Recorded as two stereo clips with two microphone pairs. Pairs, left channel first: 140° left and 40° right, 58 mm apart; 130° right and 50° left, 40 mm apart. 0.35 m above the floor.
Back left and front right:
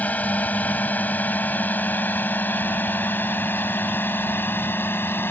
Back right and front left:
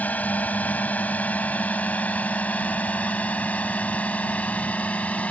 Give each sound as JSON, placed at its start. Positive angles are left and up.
{"t": 0.0, "sound": "a drone", "azimuth_deg": -165}